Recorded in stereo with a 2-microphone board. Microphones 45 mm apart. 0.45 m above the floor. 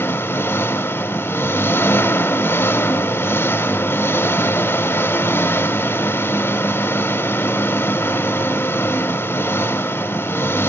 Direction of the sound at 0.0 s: 75° left (ahead or behind).